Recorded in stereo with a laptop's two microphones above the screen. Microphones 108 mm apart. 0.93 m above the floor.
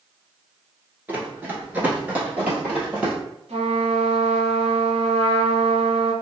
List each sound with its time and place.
1.1 s running footsteps: 15° right (ahead or behind), 0.9 m; by 3.1 s 10° right (ahead or behind), 1.5 m
3.5 s a trumpet: 75° right (ahead or behind), 1.3 m